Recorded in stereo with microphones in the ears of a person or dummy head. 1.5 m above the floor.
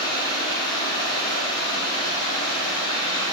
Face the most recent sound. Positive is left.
turn(degrees=25)  # may be behind; listen again after turning